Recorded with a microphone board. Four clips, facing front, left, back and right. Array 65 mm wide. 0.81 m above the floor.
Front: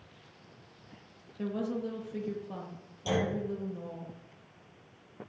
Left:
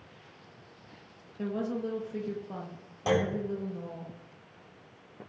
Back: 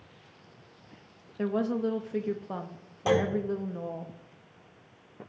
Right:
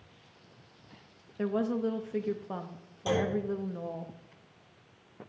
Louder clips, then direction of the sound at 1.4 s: Right 3 dB, back 6 dB; 145° right.